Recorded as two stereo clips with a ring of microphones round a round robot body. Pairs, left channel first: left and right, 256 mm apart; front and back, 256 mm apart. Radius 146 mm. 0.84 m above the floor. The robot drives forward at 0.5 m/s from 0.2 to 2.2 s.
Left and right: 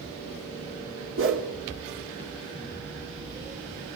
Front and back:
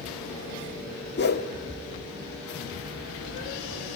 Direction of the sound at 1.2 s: 50° right.